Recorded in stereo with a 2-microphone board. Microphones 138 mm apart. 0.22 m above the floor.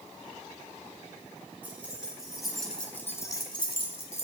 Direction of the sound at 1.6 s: 10° right (ahead or behind).